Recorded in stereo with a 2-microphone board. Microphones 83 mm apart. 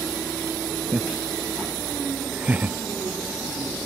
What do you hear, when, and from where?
0.9 s laughter: 15° right (ahead or behind); by 2.8 s 20° right (ahead or behind)